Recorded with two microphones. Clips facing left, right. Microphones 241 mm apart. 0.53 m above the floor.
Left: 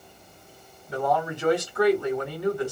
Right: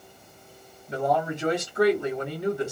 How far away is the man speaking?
About 1.4 m.